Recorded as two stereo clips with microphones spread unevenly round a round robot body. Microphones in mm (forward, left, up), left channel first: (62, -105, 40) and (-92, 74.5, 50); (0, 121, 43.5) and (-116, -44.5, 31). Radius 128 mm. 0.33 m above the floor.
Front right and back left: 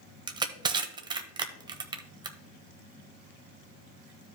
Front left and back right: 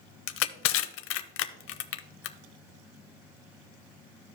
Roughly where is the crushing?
Ahead left.